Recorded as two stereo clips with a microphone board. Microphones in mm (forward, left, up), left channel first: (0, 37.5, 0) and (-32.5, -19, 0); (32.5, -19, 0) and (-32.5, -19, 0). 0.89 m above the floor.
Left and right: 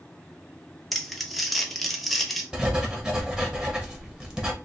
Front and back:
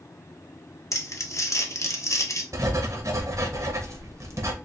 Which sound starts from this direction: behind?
Writing, at 2.5 s.